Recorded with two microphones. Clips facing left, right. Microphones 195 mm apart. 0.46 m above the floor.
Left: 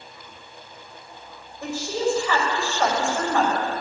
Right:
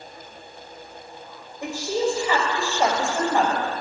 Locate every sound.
1.6 s a woman speaking: 15° right (ahead or behind), 2.5 m